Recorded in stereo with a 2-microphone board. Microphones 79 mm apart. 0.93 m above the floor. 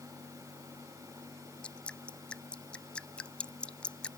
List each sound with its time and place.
1.6 s dripping: 15° left (ahead or behind)